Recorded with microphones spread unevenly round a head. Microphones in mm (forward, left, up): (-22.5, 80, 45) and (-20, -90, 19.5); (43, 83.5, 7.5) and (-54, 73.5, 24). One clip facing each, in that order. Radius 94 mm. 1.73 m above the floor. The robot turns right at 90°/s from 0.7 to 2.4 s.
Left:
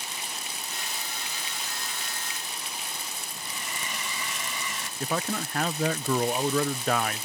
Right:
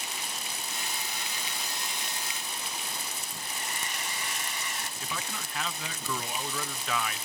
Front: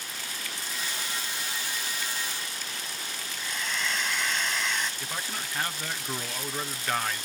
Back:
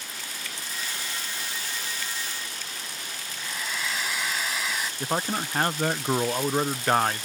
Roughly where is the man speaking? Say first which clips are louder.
Left 13 dB, back 8 dB; behind left.